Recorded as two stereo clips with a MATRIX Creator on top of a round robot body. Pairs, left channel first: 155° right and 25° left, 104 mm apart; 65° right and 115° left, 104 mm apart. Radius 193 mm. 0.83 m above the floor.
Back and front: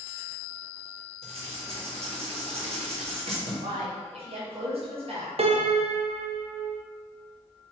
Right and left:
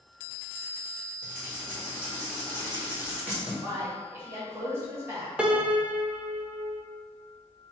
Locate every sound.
1.2 s writing: 35° left, 1.7 m
3.6 s a man speaking: 45° left, 1.7 m
5.4 s a piano: 35° left, 0.6 m